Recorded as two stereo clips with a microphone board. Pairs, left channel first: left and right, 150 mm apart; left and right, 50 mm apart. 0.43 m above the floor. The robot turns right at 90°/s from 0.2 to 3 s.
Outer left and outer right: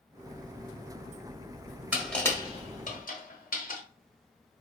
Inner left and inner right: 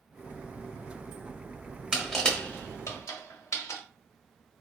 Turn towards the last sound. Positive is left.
turn(degrees=65)  # may be behind; listen again after turning